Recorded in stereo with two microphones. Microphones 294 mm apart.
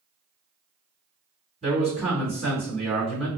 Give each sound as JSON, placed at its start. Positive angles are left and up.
{"t": 1.6, "sound": "a man speaking", "side_deg": -20, "distance_m": 1.9}